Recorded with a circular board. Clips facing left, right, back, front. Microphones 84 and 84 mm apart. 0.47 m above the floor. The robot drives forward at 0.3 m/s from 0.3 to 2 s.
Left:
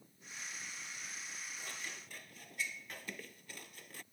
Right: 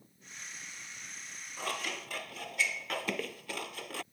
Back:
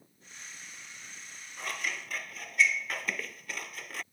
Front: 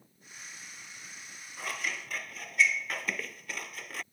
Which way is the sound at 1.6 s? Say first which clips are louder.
Right 16 dB, even; 90° right.